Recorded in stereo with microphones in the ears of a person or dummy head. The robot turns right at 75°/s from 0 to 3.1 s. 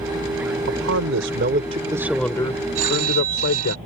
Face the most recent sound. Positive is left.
turn(degrees=-50)  # may be behind; listen again after turning